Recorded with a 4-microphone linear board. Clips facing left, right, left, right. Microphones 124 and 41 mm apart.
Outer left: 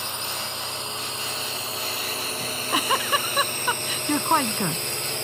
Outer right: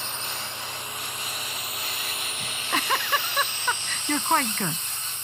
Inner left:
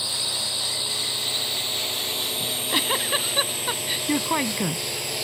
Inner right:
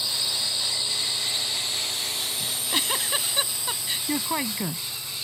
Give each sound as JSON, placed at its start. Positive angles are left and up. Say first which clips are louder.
{"t": 0.0, "sound": "a drone", "louder": "outer left 3 dB, even", "side_deg": 15}
{"t": 2.4, "sound": "a giggle", "louder": "outer left 2 dB, inner left 3 dB", "side_deg": 10}